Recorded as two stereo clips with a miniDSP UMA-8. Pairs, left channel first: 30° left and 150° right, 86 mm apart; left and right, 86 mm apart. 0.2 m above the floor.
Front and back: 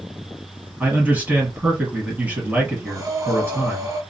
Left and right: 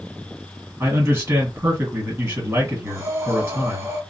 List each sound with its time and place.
0.8 s a man speaking: 110° right, 1.6 m
2.9 s breathing: 140° right, 1.8 m